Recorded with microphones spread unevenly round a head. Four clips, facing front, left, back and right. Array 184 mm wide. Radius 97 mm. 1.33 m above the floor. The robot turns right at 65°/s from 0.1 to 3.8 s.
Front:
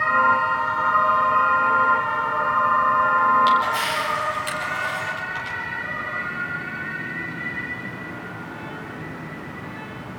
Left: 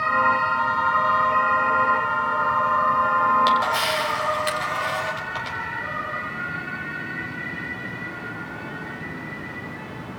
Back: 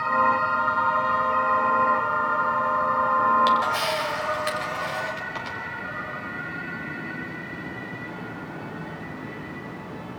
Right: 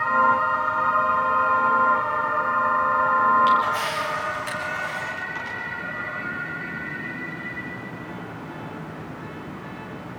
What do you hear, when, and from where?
3.5 s a camera shutter: 115° left, 5 m; by 5.6 s 140° left, 5 m